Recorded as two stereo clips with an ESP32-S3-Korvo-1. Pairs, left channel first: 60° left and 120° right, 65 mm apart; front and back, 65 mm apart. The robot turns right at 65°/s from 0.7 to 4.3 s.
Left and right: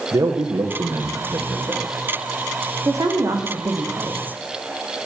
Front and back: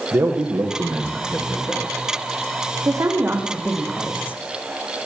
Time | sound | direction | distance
0.1 | a man speaking | 150° right | 4.5 m
2.9 | a woman speaking | 150° right | 5 m